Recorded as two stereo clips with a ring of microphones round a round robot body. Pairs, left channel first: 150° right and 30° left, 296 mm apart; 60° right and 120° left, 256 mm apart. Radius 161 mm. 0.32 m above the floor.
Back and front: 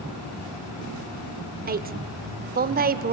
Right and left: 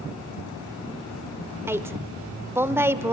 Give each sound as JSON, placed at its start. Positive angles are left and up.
{"t": 1.7, "sound": "a woman speaking", "azimuth_deg": 45, "distance_m": 1.0}